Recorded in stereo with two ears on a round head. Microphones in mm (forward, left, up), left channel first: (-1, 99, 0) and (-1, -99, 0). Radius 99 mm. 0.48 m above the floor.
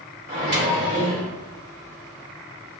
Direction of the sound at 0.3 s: 40° right (ahead or behind).